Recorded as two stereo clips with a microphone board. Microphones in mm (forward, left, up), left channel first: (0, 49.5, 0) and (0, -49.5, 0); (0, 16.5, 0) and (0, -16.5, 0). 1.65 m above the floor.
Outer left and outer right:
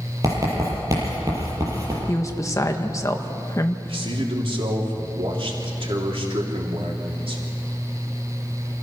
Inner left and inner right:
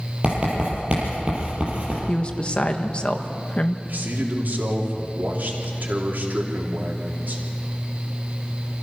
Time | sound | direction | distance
0.2 | writing | 35° right (ahead or behind) | 7 m
2.1 | a woman speaking | 30° left (ahead or behind) | 1.4 m
3.9 | a man speaking | 65° right (ahead or behind) | 3.5 m